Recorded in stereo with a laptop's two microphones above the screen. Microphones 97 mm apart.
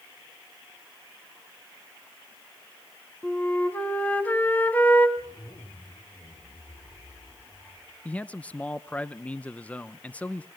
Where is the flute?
15° left (ahead or behind), 2.0 m.